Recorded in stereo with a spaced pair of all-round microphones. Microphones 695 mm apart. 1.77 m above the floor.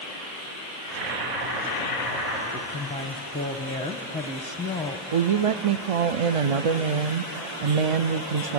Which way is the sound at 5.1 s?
55° right (ahead or behind).